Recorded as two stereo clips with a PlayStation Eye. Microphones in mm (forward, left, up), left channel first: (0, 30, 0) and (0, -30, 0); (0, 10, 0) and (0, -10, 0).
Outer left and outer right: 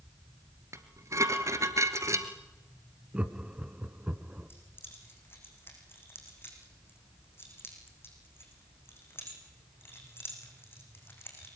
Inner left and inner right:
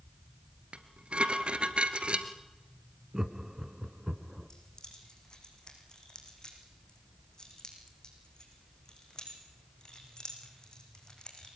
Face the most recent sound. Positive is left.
turn(degrees=40)  # may be behind; listen again after turning